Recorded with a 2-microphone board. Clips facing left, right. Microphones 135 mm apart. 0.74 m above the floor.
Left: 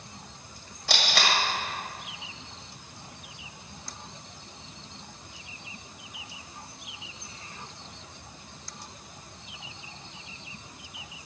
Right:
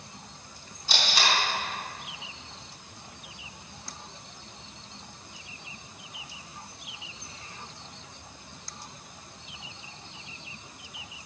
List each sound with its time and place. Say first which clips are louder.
0.9 s tape being pulled: left 1 dB; 80° left, 2 m